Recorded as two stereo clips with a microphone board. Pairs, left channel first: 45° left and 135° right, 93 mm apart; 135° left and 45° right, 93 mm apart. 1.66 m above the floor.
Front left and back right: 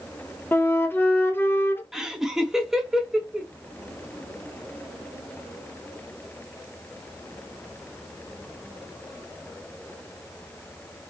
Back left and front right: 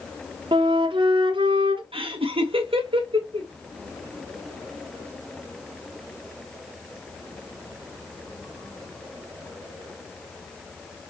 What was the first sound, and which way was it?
A flute, 20° right.